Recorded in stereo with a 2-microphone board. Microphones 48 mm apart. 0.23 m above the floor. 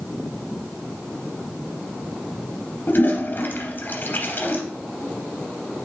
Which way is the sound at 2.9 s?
45° left (ahead or behind).